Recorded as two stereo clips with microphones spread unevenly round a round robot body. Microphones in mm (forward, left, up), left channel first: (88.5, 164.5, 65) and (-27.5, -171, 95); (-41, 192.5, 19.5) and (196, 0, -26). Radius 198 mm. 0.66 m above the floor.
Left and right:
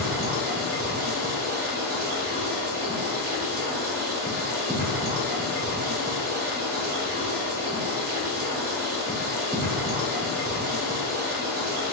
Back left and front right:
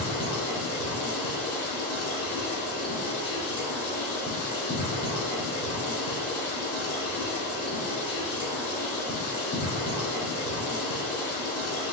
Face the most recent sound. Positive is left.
turn(degrees=-175)